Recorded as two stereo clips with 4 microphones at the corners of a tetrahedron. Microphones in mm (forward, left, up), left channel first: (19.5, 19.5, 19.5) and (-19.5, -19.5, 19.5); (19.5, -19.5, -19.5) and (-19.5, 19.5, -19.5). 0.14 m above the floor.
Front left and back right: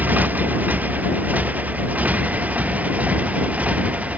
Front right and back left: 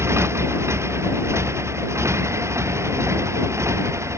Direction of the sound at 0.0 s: 170° left.